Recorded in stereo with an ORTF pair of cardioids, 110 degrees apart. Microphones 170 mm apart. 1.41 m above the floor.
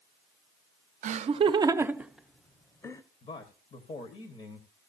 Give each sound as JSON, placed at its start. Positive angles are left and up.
{"t": 1.0, "sound": "laughter", "azimuth_deg": -50, "distance_m": 0.8}
{"t": 3.2, "sound": "a man speaking", "azimuth_deg": 40, "distance_m": 1.3}